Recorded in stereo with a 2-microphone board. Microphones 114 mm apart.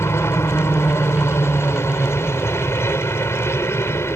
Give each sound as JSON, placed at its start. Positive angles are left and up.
{"t": 0.0, "sound": "a helicopter", "side_deg": 20}